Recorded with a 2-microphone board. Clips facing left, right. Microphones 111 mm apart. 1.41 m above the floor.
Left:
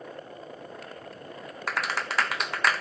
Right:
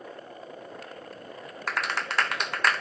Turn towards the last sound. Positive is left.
turn(degrees=0)  # may be behind; listen again after turning